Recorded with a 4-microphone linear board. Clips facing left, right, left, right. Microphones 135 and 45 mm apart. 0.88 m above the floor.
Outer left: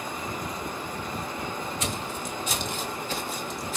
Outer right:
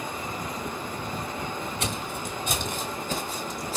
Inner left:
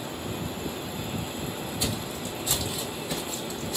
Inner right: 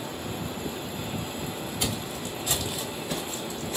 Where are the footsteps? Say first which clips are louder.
Even, inner right 1 dB; 60° right (ahead or behind), 1.5 m; by 3.8 s 35° right (ahead or behind), 2 m.